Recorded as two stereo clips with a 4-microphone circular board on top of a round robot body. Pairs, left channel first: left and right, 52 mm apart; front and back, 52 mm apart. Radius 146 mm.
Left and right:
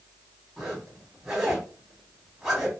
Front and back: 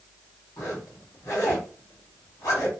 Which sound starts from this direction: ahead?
A zipper, at 0.6 s.